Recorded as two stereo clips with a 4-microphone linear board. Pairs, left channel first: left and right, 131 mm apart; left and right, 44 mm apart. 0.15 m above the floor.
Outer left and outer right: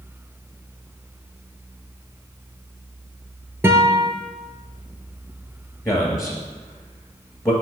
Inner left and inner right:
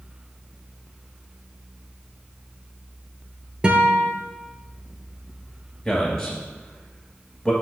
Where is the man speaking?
25° left (ahead or behind), 1.8 m.